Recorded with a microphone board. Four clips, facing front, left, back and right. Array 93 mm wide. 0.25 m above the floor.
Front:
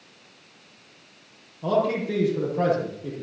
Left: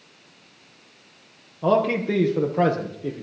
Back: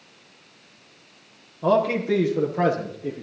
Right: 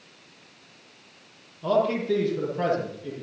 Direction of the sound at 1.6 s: 115° left.